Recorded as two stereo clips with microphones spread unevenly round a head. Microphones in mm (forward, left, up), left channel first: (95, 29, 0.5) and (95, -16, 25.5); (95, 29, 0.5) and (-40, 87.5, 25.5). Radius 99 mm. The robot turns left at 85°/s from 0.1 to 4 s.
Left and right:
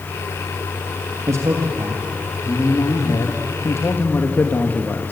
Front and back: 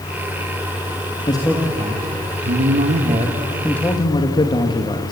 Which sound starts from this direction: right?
A man speaking, at 1.3 s.